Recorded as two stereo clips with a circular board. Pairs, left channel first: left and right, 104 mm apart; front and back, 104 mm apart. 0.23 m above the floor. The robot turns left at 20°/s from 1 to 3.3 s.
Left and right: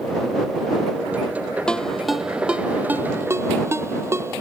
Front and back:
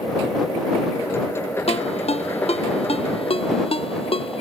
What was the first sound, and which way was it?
A ringtone, 10° left.